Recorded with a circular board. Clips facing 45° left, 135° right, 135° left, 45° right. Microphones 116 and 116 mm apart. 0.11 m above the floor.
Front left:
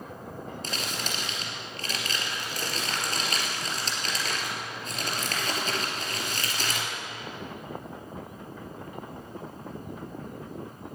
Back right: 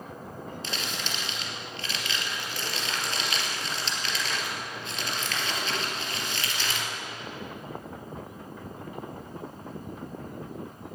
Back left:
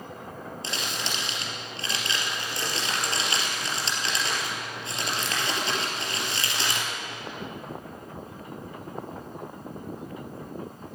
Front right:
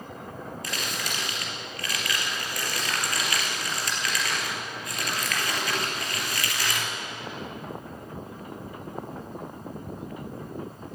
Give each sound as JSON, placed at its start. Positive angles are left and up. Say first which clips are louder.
{"t": 0.6, "sound": "crumpling", "louder": "front left 1 dB, back left 1 dB", "azimuth_deg": 80, "distance_m": 2.5}